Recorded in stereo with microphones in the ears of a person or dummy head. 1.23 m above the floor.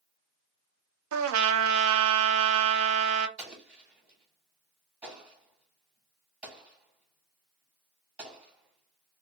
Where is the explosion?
10° right (ahead or behind), 1.2 m.